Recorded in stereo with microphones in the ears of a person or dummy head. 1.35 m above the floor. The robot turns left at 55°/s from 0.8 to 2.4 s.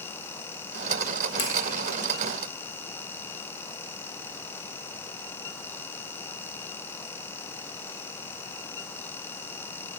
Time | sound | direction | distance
1.4 | a finger snap | 75° left (ahead or behind) | 2.0 m